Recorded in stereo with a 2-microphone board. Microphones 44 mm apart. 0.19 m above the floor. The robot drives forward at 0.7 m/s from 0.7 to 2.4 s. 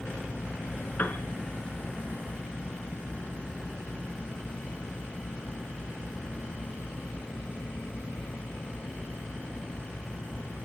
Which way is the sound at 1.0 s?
45° left (ahead or behind).